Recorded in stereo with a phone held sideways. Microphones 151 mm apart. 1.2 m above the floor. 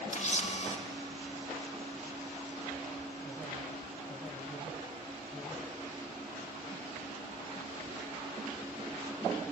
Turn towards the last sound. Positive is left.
turn(degrees=50)  # may be behind; listen again after turning